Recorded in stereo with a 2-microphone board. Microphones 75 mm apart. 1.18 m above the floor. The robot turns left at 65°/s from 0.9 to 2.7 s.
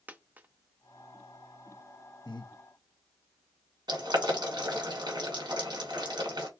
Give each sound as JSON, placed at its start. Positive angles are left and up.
{"t": 0.1, "sound": "a dropped coin", "side_deg": -25, "distance_m": 0.5}
{"t": 2.2, "sound": "breathing", "side_deg": 70, "distance_m": 1.0}
{"t": 3.9, "sound": "boiling", "side_deg": -70, "distance_m": 2.0}